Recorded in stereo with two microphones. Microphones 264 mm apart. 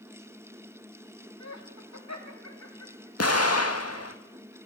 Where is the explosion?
60° left (ahead or behind), 1.9 m.